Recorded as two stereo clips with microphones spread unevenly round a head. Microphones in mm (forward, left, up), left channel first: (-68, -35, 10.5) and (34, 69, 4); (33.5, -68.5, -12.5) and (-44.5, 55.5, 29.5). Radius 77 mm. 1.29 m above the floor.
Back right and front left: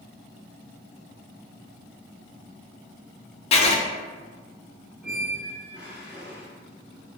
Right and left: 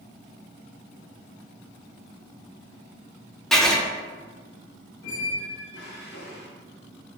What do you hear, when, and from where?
3.5 s writing: 120° right, 0.6 m
5.0 s a squeak: 40° right, 0.9 m